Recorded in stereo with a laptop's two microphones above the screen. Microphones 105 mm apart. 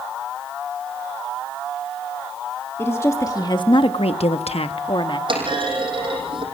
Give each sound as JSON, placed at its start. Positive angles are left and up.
{"t": 2.8, "sound": "a woman speaking", "side_deg": 25, "distance_m": 1.6}
{"t": 5.3, "sound": "a clunk", "side_deg": -50, "distance_m": 5.5}